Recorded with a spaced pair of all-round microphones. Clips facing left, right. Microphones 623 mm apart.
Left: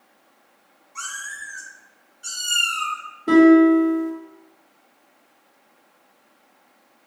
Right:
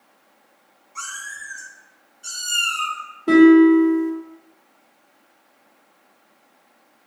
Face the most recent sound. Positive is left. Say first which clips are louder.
# right 2 dB
turn(degrees=5)  # may be behind; listen again after turning